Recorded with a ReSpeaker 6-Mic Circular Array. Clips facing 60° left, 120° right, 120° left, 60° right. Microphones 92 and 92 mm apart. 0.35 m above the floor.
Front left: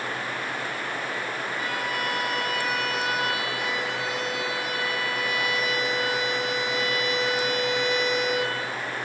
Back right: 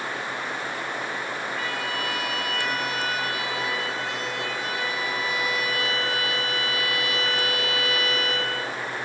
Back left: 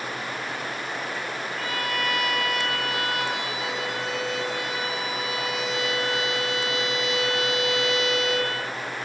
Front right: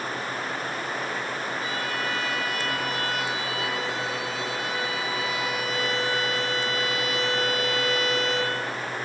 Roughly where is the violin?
Behind left.